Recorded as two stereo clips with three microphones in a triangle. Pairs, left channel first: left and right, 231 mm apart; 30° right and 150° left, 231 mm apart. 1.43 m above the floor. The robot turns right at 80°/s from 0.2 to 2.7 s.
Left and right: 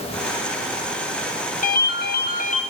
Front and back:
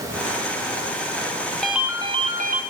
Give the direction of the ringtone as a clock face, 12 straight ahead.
10 o'clock.